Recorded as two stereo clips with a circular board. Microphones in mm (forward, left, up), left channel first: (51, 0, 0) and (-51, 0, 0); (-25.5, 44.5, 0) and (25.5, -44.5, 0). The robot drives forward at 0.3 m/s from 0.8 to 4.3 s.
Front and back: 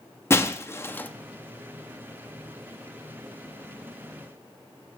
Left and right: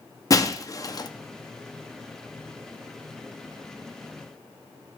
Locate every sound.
0.3 s breaking glass: 65° left, 0.6 m; by 1.1 s 75° left, 0.5 m